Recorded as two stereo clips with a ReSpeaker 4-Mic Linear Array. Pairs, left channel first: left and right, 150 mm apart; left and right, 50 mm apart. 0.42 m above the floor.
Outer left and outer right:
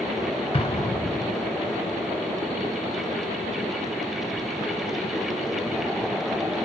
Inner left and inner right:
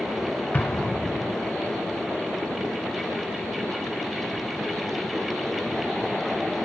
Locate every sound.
0.5 s an explosion: 40° left (ahead or behind), 0.6 m